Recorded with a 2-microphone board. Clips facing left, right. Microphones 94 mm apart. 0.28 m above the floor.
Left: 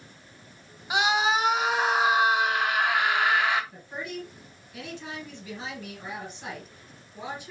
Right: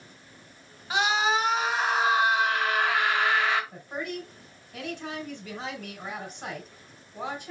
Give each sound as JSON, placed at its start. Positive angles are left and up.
{"t": 0.9, "sound": "a scream", "side_deg": 15, "distance_m": 1.5}
{"t": 3.7, "sound": "a woman speaking", "side_deg": -50, "distance_m": 3.0}